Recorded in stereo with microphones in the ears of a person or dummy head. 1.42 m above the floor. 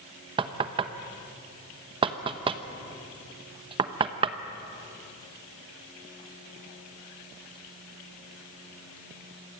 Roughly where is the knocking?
Right.